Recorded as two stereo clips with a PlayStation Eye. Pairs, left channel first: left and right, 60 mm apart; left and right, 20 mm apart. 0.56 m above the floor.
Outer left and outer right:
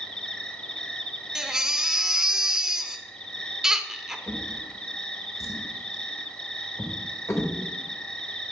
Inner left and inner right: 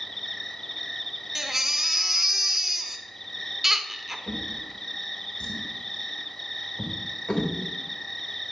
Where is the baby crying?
10° right (ahead or behind), 0.6 m.